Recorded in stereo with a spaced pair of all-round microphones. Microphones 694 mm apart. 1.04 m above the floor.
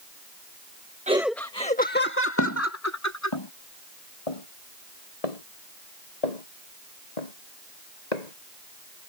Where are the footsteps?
25° left (ahead or behind); by 9.1 s 70° left (ahead or behind).